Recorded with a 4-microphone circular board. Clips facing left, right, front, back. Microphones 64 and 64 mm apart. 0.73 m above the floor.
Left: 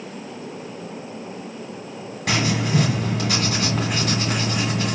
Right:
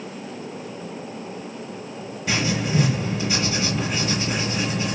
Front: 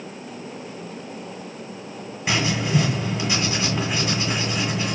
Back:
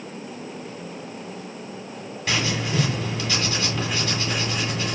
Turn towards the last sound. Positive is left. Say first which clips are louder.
# left 2 dB, front 3 dB
turn(degrees=75)